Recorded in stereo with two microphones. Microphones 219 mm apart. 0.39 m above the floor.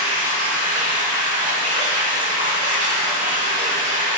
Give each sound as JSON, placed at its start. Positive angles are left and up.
{"t": 0.0, "sound": "running water", "side_deg": -35, "distance_m": 0.9}